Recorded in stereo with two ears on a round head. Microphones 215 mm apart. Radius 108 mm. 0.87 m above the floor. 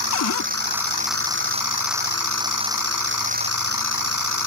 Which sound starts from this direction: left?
A cupboard door, at 0.1 s.